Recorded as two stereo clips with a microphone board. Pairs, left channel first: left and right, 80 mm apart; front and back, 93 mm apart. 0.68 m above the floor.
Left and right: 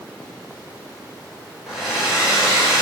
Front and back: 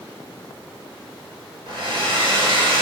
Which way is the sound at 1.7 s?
175° right.